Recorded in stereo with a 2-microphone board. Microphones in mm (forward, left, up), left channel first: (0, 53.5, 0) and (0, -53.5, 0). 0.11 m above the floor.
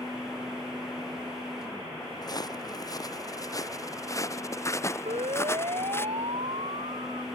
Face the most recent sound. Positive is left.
turn(degrees=-75)  # may be behind; listen again after turning